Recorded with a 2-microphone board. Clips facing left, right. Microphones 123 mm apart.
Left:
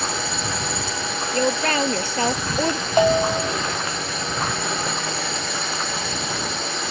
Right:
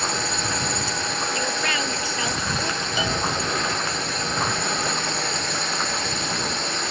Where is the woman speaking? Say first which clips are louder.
Left 10 dB; 40° left (ahead or behind).